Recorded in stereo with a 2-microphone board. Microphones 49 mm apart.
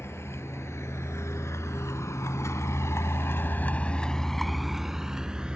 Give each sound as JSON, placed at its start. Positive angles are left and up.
{"t": 0.0, "sound": "a vehicle", "side_deg": 60}